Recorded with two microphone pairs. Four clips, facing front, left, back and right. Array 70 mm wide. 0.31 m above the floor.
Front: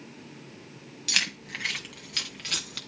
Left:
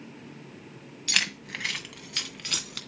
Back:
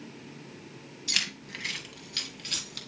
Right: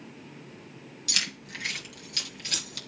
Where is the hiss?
I don't hear a hiss.